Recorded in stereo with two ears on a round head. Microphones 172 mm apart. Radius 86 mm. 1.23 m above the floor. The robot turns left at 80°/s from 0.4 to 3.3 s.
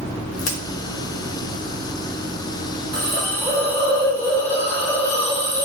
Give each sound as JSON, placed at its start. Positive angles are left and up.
{"t": 0.4, "sound": "a crack", "side_deg": 80, "distance_m": 0.8}
{"t": 2.9, "sound": "a hiss", "side_deg": -40, "distance_m": 1.3}